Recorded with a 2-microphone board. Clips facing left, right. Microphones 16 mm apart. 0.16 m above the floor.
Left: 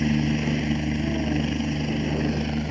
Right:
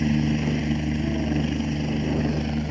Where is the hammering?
I don't hear hammering.